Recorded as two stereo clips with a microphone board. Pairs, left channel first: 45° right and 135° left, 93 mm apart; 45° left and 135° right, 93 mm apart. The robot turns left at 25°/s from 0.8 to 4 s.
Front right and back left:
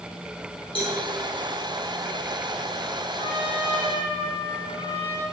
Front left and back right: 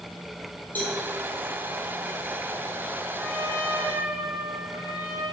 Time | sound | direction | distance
0.8 | a cowbell | 25° right | 3.5 m
3.1 | a trumpet | 50° right | 4 m